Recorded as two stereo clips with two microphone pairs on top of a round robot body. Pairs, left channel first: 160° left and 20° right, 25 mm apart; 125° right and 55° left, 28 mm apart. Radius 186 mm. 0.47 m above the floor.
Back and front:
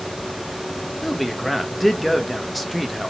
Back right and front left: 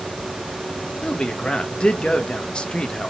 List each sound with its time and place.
1.0 s a man speaking: 115° right, 0.7 m